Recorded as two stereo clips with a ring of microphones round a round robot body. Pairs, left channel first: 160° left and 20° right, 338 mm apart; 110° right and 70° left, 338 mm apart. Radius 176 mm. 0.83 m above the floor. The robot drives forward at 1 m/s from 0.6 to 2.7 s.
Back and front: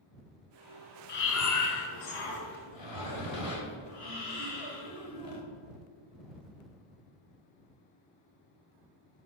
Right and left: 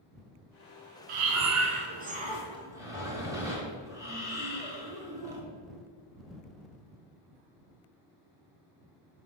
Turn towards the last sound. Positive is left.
turn(degrees=150)